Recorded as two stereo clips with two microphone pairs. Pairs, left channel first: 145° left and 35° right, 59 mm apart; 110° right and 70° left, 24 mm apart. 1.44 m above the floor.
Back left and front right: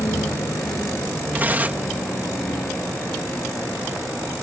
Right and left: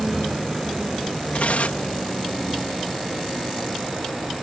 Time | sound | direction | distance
0.0 | a vehicle | 150° left | ?
1.3 | tearing paper | 90° right | ?